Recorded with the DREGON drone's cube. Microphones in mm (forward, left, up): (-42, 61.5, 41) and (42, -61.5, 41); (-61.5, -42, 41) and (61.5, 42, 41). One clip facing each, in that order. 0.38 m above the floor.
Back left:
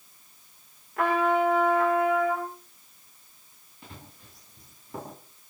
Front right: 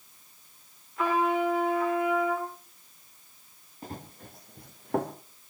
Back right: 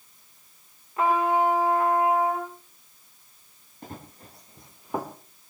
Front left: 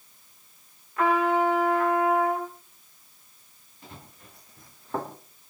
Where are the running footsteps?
105° right, 3 m; by 5.2 s 60° right, 2.5 m.